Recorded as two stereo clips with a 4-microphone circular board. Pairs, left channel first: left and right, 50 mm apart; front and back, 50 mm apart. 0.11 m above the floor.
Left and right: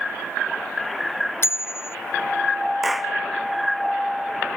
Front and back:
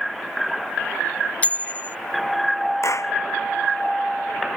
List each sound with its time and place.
1.4 s a bicycle bell: 60° left
2.8 s a clap: 5° right